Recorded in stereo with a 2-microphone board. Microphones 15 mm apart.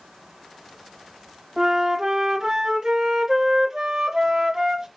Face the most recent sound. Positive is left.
turn(degrees=-40)  # may be behind; listen again after turning